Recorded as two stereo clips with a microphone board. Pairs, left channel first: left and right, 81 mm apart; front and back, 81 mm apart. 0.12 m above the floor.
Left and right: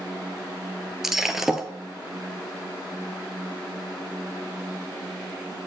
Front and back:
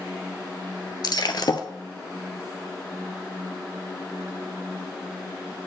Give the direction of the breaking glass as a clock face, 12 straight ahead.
12 o'clock.